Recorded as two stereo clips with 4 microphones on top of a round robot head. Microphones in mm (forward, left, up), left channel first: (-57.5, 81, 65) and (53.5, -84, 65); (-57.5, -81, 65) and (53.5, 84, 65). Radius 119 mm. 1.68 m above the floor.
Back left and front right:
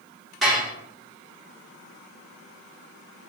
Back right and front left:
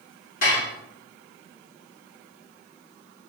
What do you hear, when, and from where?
0.4 s dishes clattering: 145° right, 1.0 m